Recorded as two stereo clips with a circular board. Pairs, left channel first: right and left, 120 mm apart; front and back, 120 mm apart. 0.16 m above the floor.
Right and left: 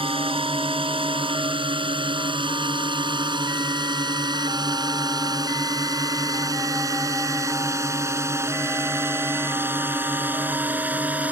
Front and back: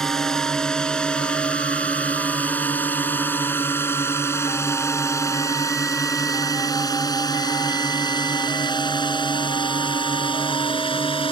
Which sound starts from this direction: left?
A drone, at 0.0 s.